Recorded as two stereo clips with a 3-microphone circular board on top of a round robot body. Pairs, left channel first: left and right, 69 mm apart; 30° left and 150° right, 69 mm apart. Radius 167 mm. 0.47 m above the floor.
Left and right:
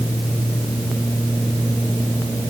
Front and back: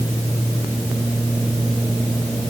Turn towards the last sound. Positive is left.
No sound to turn to.